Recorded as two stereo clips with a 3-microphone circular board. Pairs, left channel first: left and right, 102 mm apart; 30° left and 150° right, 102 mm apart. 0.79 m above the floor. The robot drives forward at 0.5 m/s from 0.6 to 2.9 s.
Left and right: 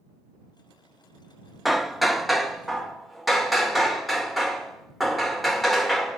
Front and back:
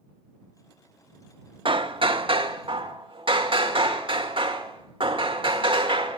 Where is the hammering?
Straight behind, 0.5 m.